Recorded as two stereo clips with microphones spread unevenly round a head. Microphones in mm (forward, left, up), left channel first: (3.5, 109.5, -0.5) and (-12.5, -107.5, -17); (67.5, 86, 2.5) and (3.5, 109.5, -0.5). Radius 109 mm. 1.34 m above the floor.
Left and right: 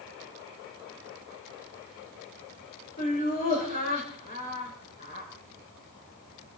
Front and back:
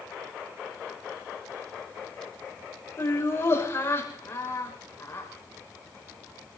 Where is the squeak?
No squeak in this recording.